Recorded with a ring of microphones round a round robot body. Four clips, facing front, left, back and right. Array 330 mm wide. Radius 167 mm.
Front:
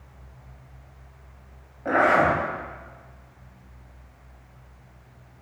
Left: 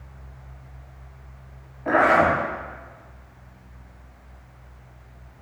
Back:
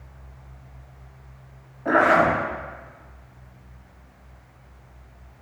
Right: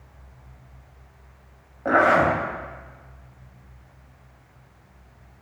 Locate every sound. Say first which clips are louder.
1.9 s a zipper: even, back 2 dB; 85° right, 5 m